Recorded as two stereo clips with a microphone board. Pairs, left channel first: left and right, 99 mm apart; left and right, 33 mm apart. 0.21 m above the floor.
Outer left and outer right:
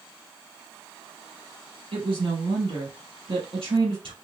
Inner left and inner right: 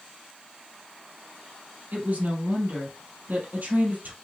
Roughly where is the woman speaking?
Right.